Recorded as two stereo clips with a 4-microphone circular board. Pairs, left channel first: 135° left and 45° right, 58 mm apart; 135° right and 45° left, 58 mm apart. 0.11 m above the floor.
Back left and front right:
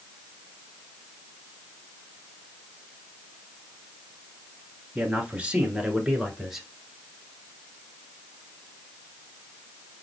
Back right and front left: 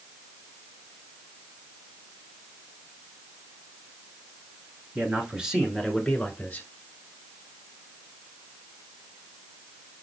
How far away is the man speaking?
About 1.5 m.